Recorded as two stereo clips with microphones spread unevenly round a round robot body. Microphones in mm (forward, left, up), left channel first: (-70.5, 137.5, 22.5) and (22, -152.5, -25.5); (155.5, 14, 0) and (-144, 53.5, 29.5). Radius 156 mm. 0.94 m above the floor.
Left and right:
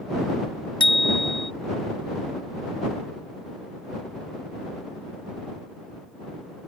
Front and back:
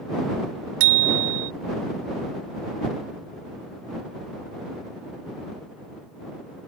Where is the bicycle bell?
175° right.